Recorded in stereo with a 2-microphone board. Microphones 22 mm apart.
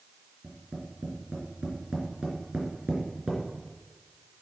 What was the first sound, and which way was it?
Tapping, 45° right (ahead or behind).